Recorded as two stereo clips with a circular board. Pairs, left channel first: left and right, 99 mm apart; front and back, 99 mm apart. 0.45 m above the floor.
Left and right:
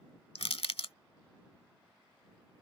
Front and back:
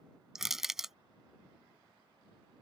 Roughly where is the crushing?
Left.